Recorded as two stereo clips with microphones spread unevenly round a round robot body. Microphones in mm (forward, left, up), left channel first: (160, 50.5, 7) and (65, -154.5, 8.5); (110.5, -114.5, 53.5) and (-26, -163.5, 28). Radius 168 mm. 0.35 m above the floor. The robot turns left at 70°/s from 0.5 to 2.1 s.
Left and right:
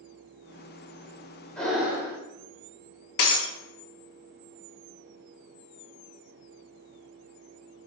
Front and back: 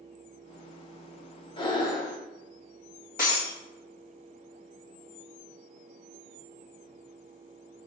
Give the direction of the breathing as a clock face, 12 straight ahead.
12 o'clock.